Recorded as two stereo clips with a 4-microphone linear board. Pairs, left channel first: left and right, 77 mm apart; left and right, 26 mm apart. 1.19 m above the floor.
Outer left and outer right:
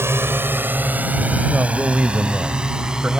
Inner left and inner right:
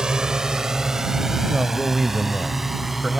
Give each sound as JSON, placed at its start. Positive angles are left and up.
{"t": 0.0, "sound": "a drone", "side_deg": -30}
{"t": 1.5, "sound": "a man speaking", "side_deg": -15}